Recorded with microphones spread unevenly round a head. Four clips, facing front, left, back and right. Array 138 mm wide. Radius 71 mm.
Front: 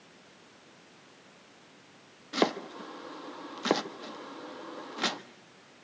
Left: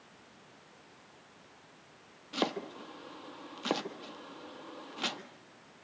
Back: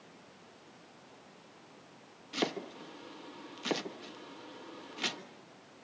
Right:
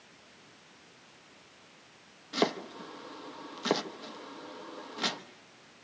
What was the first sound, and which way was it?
Chopping, 20° right.